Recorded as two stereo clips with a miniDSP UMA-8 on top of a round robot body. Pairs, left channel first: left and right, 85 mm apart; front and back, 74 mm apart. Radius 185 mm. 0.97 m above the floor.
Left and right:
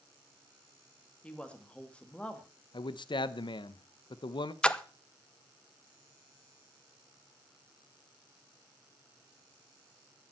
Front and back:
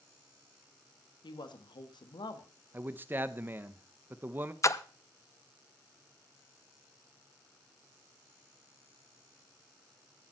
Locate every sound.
1.2 s a woman speaking: 15° left, 2 m
2.7 s a man speaking: 120° left, 0.8 m
4.6 s a splash: 15° left, 1.0 m